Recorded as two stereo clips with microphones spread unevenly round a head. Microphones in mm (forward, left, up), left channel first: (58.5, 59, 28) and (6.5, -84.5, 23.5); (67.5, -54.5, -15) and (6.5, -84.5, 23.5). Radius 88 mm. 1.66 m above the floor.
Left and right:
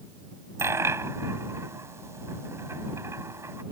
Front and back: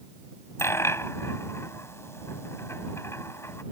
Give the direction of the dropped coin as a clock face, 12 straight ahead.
1 o'clock.